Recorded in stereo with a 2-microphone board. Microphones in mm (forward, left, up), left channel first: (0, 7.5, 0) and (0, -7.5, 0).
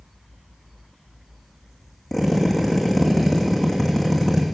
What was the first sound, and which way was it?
A drill, 10° left (ahead or behind).